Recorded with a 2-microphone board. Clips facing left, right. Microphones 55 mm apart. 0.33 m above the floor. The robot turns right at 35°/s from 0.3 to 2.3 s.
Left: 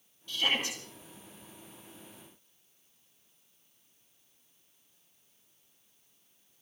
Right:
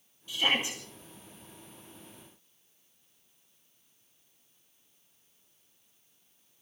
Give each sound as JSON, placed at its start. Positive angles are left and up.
{"t": 0.3, "sound": "a shout", "side_deg": -15, "distance_m": 2.5}